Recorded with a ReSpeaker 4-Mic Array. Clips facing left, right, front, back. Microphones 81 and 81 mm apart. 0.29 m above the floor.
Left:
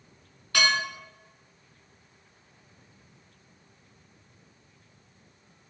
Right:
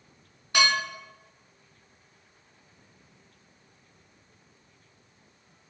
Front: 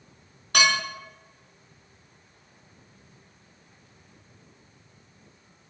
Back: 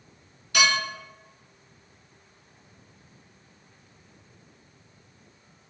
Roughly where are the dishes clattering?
Ahead right.